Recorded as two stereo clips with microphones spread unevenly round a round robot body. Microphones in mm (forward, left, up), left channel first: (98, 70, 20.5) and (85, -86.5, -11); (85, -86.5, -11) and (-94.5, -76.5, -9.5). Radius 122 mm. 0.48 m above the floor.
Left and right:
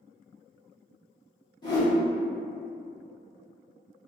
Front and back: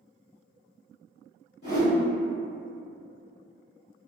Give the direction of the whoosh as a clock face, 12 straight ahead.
11 o'clock.